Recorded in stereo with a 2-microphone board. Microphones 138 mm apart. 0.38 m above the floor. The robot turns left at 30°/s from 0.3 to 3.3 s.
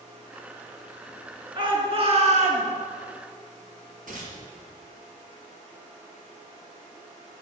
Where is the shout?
35° right, 4.5 m; by 2.7 s 65° right, 4.5 m.